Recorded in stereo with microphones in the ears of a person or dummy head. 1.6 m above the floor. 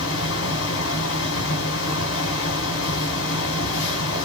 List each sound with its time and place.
0.0 s a fan: 75° left (ahead or behind), 1.0 m